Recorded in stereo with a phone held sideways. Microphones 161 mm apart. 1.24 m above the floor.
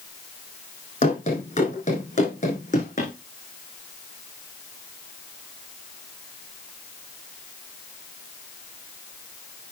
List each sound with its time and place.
1.0 s running footsteps: 50° left (ahead or behind), 3.5 m; by 3.1 s 55° left (ahead or behind), 4.5 m